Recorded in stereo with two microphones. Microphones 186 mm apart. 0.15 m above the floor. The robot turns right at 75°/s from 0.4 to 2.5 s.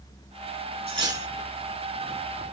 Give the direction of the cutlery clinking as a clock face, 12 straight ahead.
1 o'clock.